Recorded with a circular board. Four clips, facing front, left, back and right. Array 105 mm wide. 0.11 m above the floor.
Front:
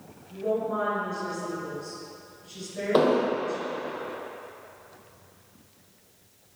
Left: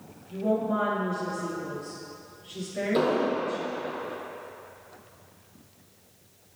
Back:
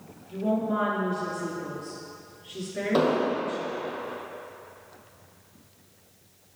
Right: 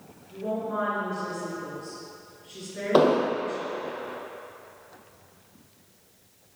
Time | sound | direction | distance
0.3 | a woman speaking | straight behind | 1.7 m
2.9 | an explosion | 80° right | 0.9 m